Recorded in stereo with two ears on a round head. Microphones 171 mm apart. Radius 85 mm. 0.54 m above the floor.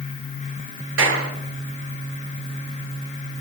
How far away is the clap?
About 8 m.